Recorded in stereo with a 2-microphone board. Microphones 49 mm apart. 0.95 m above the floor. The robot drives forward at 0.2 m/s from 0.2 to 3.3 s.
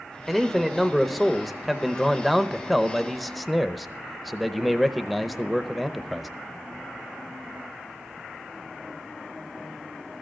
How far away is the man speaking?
About 1.1 m.